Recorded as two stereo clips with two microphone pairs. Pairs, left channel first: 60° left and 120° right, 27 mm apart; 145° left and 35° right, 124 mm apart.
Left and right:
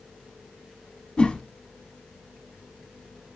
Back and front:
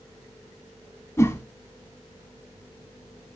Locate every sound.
1.2 s a whoosh: 85° left, 0.8 m